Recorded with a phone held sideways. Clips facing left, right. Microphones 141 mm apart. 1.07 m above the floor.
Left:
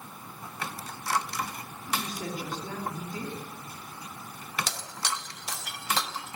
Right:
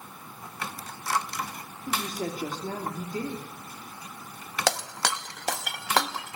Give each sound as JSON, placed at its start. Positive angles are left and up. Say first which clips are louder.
{"t": 1.9, "sound": "a woman speaking", "louder": "right 3 dB", "side_deg": -45, "distance_m": 2.5}
{"t": 4.7, "sound": "breaking glass", "louder": "right 8 dB", "side_deg": -75, "distance_m": 0.8}